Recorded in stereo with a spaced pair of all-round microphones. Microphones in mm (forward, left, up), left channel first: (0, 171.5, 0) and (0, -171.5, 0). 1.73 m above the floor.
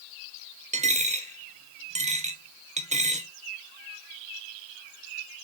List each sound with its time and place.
0.7 s a dropped coin: 20° right (ahead or behind), 1.2 m